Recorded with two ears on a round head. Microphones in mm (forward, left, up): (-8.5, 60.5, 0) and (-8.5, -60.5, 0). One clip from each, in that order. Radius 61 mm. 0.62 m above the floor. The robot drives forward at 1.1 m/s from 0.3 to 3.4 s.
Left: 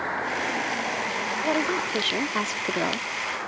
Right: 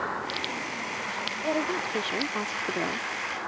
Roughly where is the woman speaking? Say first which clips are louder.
Left 3 dB; left.